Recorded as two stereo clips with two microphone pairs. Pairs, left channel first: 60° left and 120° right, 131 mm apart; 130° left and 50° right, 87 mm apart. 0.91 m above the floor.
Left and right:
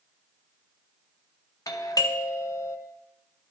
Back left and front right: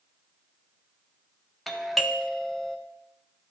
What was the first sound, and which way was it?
A doorbell, 50° left.